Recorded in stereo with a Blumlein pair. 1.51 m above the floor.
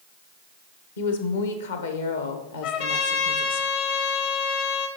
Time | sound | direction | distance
1.0 | a woman speaking | 60° left | 1.0 m
2.6 | a trumpet | 50° left | 1.0 m